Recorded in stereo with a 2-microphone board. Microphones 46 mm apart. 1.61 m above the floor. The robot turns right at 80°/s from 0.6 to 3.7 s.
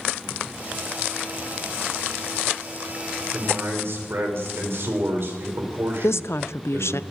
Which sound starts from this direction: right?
A man speaking, at 3.3 s.